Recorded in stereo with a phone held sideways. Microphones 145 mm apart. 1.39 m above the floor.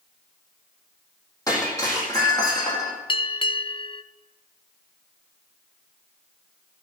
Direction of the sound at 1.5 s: 25° left (ahead or behind).